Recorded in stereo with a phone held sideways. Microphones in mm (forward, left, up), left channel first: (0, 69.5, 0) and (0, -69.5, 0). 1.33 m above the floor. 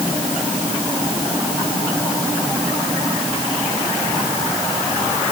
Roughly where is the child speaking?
I don't hear a child speaking.